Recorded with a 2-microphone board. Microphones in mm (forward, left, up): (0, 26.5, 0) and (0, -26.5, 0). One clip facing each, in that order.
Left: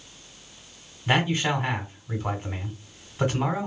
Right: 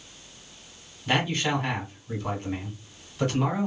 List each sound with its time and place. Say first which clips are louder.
1.1 s a man speaking: left 2 dB; 20° left (ahead or behind), 1.1 m